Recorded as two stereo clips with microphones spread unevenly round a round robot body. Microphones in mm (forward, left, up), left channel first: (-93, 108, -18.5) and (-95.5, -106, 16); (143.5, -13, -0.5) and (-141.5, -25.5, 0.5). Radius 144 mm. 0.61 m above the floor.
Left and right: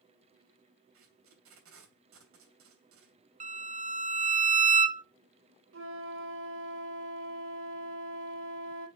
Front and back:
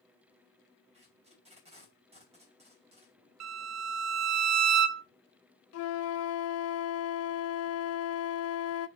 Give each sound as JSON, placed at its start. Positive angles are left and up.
{"t": 0.9, "sound": "tape being pulled", "azimuth_deg": -110, "distance_m": 3.0}
{"t": 3.4, "sound": "a violin", "azimuth_deg": -150, "distance_m": 0.7}
{"t": 5.7, "sound": "a flute", "azimuth_deg": -40, "distance_m": 0.6}